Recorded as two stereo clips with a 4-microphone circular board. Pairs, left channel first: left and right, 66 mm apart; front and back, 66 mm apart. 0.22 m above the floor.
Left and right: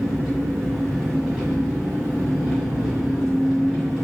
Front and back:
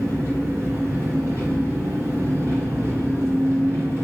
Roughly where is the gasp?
I don't hear a gasp.